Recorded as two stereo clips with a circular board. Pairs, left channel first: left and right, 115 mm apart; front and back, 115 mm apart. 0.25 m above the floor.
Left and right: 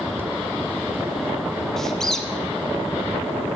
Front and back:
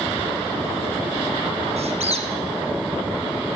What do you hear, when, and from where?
1.8 s a squeak: 175° left, 0.9 m